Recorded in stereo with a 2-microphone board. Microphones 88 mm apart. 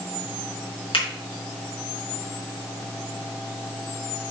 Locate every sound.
0.9 s a finger snap: 70° left (ahead or behind), 4 m